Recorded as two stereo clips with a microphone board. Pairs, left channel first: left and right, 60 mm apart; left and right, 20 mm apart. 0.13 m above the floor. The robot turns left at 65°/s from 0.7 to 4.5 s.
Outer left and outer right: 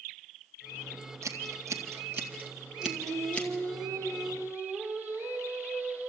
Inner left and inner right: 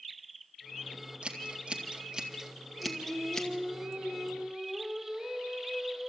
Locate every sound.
1.2 s scissors: 55° right (ahead or behind), 2 m; by 3.5 s 30° left (ahead or behind), 2 m
2.8 s singing: 35° right, 5 m; by 6.1 s 145° right, 5 m